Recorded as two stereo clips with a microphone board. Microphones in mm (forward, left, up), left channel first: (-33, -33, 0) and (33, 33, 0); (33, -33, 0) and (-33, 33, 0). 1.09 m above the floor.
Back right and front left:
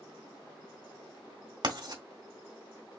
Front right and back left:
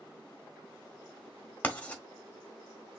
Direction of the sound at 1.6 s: 25° left.